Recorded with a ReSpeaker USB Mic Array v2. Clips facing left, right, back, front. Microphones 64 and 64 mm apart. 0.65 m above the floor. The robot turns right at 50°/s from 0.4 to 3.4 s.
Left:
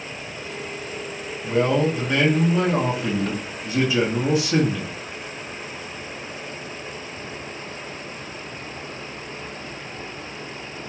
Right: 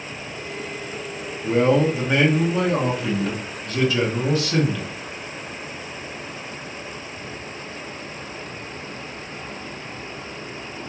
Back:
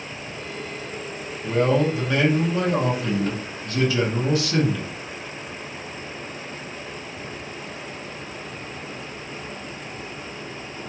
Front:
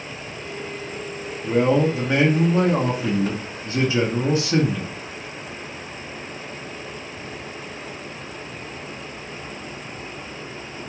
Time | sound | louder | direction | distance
1.4 | a man speaking | right 2 dB, front 2 dB | 65° right | 0.9 m